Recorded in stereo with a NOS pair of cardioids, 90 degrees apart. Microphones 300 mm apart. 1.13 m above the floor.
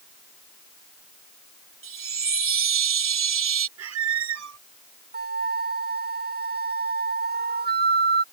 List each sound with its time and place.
1.8 s a chime: 40° right
3.8 s a squeak: 55° right
5.1 s a flute: 30° right